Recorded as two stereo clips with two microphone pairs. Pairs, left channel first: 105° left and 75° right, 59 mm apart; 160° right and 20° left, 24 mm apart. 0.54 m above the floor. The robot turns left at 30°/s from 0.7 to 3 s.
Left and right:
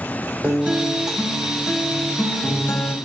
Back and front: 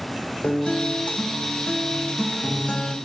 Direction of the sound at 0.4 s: 140° right.